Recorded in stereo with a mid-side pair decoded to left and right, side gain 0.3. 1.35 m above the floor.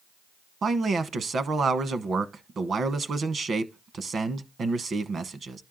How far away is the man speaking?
About 1.0 m.